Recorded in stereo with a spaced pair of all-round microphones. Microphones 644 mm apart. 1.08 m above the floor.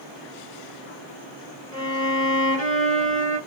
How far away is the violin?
About 1.2 m.